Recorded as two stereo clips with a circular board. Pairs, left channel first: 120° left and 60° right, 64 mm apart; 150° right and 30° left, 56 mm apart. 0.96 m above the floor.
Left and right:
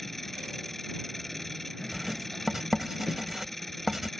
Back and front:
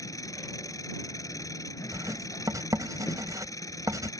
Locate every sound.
0.0 s an engine running: 155° right
1.9 s writing: 25° left